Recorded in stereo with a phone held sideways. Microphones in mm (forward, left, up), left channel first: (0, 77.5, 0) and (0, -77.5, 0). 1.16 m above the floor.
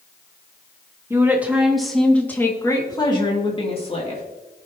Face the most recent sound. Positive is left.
turn(degrees=45)  # may be behind; listen again after turning